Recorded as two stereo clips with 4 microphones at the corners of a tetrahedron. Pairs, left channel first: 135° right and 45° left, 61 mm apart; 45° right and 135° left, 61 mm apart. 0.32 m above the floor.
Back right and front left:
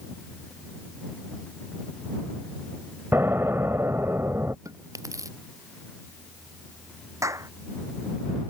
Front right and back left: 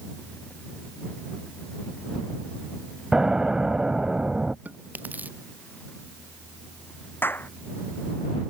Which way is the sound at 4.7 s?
70° left.